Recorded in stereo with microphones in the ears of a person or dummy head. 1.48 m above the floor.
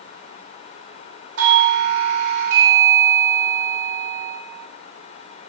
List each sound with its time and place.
1.4 s a doorbell: 75° right (ahead or behind), 4 m